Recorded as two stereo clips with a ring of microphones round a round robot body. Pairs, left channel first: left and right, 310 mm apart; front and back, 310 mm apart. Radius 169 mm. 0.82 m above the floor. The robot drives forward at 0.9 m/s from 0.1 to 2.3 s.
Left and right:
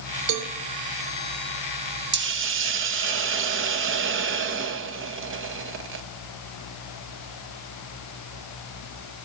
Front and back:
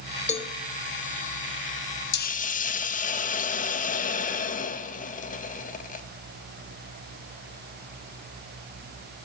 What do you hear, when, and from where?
0.3 s a cowbell: 70° right, 0.8 m; by 0.5 s 85° right, 0.8 m
2.1 s a hiss: 45° right, 0.8 m; by 6.0 s 55° right, 0.7 m